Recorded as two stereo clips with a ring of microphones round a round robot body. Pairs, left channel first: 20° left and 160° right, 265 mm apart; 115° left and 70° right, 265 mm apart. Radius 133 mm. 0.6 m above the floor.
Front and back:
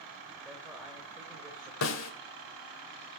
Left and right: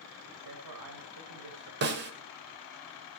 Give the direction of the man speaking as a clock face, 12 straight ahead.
2 o'clock.